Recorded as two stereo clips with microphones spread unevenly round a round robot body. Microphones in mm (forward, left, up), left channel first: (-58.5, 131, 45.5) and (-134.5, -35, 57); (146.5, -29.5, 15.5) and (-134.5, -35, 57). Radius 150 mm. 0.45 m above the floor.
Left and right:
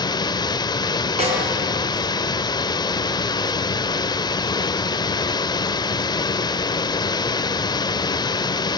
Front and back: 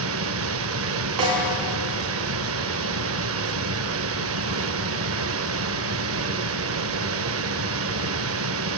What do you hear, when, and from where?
0.0 s running water: 135° left, 0.8 m
1.2 s a snare drum: 170° right, 6 m